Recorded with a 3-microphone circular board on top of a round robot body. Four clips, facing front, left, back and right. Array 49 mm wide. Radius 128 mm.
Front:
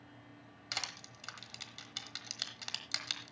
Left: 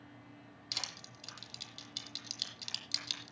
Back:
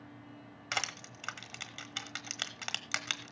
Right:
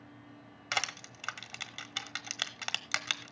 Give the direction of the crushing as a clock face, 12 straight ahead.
4 o'clock.